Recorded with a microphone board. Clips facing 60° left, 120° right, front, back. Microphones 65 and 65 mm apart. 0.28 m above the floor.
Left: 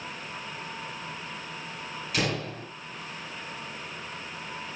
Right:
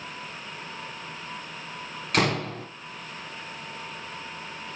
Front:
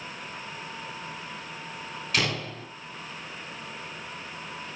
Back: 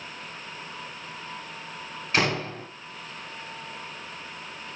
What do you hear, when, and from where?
2.1 s a door slam: 125° right, 2.0 m